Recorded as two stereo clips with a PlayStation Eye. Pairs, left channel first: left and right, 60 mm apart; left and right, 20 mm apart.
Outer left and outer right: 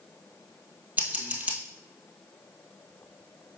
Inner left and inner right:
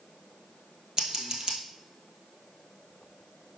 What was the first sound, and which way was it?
Scissors, 30° right (ahead or behind).